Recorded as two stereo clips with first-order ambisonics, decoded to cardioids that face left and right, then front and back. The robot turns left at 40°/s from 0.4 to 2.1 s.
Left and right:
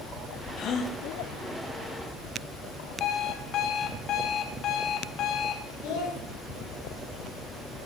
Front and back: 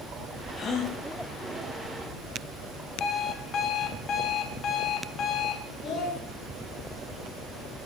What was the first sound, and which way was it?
A gasp, 60° left.